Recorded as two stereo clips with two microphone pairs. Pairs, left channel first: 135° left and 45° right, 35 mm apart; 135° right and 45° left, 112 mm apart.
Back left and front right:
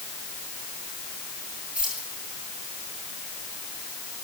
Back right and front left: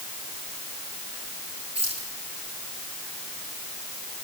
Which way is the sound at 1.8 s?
10° left.